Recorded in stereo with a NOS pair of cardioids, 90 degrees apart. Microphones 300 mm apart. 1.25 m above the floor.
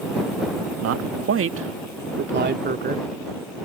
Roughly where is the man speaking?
Ahead right.